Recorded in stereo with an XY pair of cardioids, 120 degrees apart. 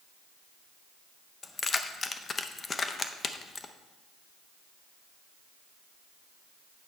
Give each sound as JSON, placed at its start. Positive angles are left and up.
{"t": 1.4, "sound": "keys jangling", "azimuth_deg": 30, "distance_m": 0.7}